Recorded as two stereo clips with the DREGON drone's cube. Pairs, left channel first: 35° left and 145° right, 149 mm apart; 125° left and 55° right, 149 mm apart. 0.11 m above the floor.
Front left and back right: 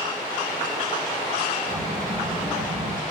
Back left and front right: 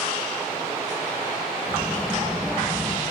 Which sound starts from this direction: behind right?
A child speaking, at 1.7 s.